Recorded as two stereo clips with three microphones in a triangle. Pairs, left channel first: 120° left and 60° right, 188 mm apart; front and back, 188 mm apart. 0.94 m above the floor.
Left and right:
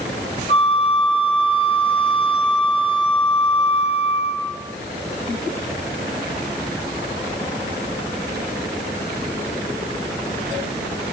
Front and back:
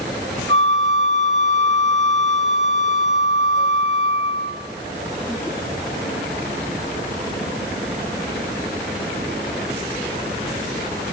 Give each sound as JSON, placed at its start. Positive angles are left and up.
{"t": 0.5, "sound": "a flute", "azimuth_deg": 180, "distance_m": 3.0}